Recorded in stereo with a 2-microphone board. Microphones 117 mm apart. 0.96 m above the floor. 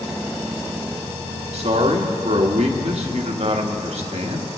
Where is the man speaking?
65° right (ahead or behind), 1.4 m.